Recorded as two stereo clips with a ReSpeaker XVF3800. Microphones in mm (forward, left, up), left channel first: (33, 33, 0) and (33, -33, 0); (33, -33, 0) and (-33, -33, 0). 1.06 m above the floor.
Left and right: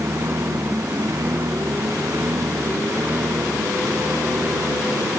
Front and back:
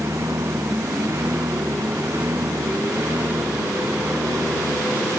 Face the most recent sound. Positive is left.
turn(degrees=-135)